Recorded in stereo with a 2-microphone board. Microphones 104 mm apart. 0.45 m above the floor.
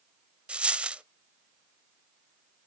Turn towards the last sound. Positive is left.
turn(degrees=-10)  # may be behind; listen again after turning